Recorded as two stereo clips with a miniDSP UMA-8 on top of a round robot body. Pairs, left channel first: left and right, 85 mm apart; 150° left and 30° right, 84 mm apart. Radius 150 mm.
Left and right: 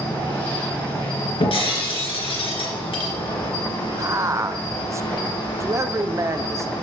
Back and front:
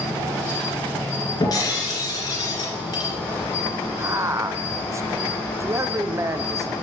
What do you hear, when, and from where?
0.0 s an insect: 85° left, 5 m
1.4 s breaking glass: 105° left, 2.5 m
4.0 s a man speaking: 60° right, 1.1 m